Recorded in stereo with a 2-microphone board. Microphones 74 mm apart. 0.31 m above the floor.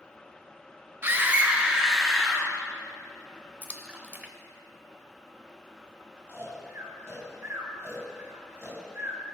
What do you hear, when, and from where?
1.0 s a scream: 30° right (ahead or behind), 1.1 m; by 2.5 s 5° left (ahead or behind), 1.4 m
3.6 s a splash: 25° right (ahead or behind), 0.8 m
6.3 s snoring: 35° right (ahead or behind), 2.5 m